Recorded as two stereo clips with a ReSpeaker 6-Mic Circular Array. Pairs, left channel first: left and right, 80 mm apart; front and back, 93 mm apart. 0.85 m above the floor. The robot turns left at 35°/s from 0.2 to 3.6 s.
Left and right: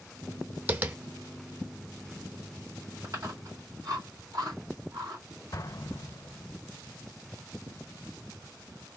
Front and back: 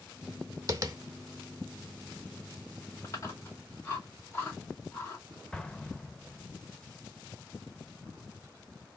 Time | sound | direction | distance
0.7 | tapping | 145° right | 0.6 m
3.0 | chewing | 40° right | 2.5 m
5.5 | an explosion | 80° left | 0.5 m